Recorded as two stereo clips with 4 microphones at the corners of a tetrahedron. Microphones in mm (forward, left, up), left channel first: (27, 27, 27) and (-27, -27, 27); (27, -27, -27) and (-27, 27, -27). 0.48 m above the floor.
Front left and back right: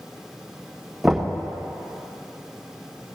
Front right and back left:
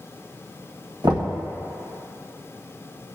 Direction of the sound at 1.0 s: 140° left.